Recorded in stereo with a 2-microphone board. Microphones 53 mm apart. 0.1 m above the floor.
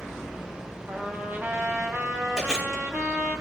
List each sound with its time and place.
0.9 s a trumpet: 35° right (ahead or behind), 1.2 m
2.4 s chewing: 10° right (ahead or behind), 5 m